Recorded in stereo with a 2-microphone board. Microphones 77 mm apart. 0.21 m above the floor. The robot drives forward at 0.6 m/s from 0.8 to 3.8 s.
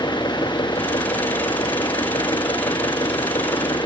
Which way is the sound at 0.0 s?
70° left (ahead or behind).